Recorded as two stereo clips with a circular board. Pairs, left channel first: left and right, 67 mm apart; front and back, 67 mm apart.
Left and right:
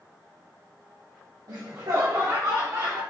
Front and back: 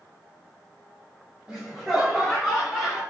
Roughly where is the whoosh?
I don't hear a whoosh.